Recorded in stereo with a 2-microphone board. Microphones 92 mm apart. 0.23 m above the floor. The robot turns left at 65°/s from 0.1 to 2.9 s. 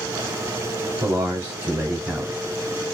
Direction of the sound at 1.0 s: 25° right (ahead or behind).